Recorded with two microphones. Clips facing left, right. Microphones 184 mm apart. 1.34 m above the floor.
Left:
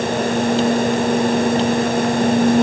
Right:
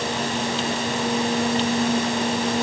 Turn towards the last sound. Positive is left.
No sound to turn to.